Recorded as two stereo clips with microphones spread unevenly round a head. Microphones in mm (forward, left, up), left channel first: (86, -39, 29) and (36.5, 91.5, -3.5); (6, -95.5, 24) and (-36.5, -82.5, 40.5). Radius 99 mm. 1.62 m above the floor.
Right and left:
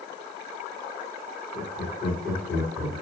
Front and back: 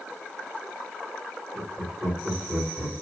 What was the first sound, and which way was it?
Laughter, 160° right.